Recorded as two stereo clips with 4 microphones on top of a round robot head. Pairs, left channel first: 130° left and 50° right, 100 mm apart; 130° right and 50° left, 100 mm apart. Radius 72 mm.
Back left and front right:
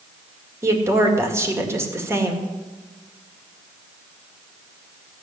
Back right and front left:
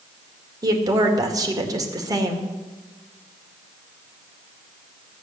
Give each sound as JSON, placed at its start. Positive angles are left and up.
{"t": 0.6, "sound": "a woman speaking", "azimuth_deg": 5, "distance_m": 2.0}